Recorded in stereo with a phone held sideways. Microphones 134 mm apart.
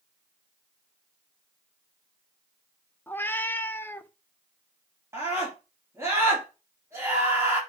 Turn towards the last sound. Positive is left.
turn(degrees=-20)  # may be behind; listen again after turning